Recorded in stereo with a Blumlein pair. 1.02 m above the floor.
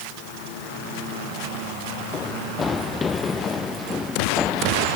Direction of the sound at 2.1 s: 20° left.